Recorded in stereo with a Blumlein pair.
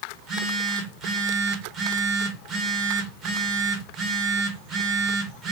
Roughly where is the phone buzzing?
Ahead right.